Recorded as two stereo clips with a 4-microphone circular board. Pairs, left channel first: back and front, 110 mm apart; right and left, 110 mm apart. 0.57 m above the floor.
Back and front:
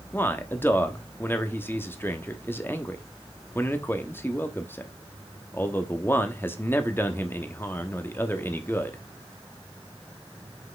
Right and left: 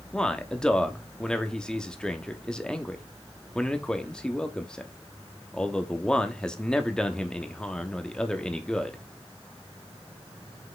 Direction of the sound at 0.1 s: 160° right.